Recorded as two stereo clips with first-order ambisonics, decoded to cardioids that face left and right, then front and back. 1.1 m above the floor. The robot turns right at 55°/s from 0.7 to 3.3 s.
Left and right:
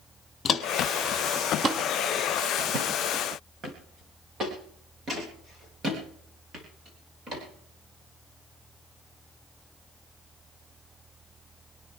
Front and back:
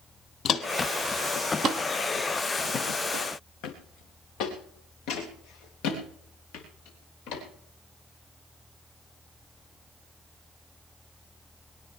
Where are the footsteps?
45° left, 1.3 m; by 7.4 s 25° right, 8.5 m.